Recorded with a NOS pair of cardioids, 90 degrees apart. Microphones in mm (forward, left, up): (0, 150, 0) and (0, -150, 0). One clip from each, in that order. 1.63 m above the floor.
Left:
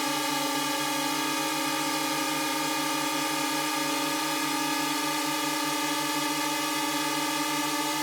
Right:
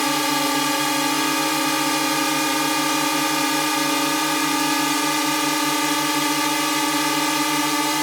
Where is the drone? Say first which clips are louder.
Right 8 dB; 55° right.